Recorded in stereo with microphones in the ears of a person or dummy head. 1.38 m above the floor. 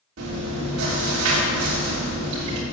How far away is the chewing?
About 3 m.